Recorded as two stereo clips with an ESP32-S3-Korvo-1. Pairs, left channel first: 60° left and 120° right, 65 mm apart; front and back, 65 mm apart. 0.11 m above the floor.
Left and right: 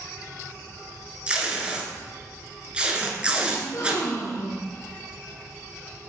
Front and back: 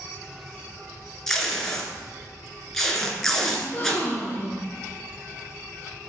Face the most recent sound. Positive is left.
turn(degrees=55)